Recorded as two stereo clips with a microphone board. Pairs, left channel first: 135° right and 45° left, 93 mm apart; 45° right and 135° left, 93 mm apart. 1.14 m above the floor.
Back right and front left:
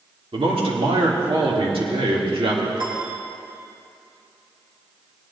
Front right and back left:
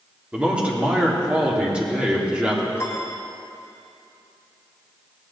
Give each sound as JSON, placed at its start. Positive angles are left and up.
{"t": 0.3, "sound": "a man speaking", "azimuth_deg": 60, "distance_m": 2.5}
{"t": 2.8, "sound": "a piano", "azimuth_deg": 15, "distance_m": 2.5}